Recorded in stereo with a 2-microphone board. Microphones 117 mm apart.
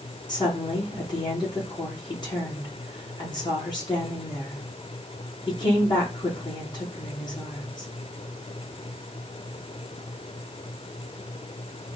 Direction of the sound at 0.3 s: 40° left (ahead or behind).